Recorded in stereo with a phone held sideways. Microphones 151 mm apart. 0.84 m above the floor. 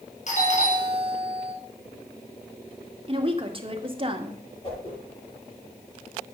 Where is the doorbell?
55° left (ahead or behind), 4.5 m.